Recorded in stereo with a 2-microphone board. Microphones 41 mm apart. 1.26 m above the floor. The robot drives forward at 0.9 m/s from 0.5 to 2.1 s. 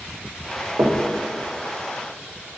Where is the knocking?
80° right, 1.2 m; by 1.1 s 85° right, 1.2 m.